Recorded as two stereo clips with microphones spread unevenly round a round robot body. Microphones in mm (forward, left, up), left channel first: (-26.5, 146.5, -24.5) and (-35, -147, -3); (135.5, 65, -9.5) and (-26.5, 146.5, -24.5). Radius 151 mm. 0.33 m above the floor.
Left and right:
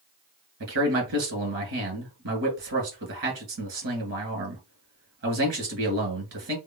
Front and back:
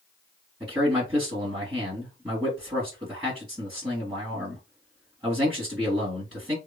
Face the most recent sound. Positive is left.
turn(degrees=-120)